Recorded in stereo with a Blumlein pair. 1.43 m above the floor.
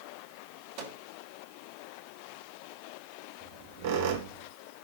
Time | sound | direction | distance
0.8 | a microwave | 45° right | 2.5 m
3.4 | a squeak | 50° right | 1.6 m